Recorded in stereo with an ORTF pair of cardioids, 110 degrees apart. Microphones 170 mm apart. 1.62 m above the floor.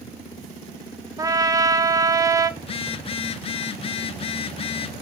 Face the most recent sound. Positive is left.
turn(degrees=35)